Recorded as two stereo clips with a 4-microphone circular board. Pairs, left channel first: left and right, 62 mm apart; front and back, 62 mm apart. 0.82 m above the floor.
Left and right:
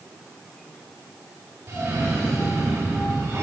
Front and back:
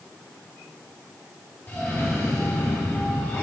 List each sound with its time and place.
1.7 s a cough: 55° right, 1.6 m